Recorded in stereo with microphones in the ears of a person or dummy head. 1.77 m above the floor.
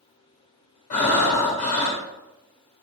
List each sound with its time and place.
0.9 s breathing: 50° left (ahead or behind), 1.5 m